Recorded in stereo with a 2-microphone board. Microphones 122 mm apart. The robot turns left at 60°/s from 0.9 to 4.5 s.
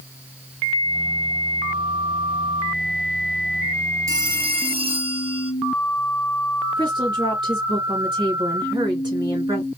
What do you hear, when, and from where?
4.1 s a phone ringing: 30° right (ahead or behind), 2.5 m; by 5.5 s 50° right (ahead or behind), 2.5 m
6.8 s a woman speaking: 40° right (ahead or behind), 2.5 m